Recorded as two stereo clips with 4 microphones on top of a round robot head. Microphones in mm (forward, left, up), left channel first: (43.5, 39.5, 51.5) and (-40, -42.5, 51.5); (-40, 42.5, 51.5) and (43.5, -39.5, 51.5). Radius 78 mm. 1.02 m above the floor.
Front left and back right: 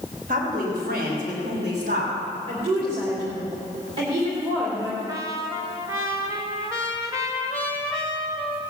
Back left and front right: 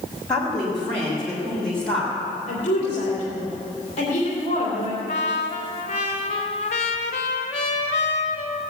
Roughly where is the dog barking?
No dog barking in this recording.